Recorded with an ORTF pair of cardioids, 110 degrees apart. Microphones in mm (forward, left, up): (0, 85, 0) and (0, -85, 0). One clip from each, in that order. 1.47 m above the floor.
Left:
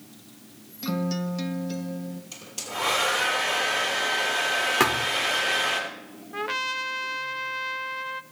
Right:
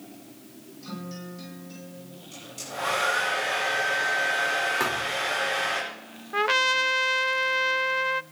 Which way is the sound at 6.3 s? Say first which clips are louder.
Right 6 dB; 30° right.